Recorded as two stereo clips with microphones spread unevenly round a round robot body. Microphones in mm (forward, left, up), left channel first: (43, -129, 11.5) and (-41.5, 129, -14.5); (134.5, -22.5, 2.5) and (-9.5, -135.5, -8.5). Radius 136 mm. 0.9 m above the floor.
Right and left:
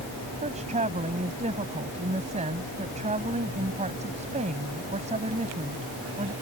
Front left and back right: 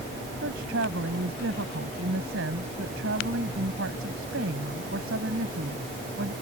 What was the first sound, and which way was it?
A woman speaking, 175° left.